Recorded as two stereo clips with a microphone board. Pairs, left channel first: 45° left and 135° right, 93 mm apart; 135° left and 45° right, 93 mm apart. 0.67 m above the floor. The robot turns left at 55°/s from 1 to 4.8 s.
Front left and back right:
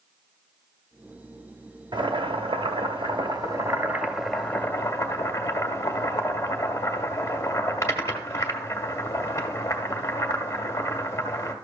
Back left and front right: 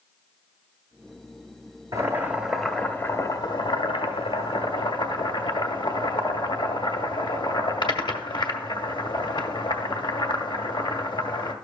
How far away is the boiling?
About 1.1 m.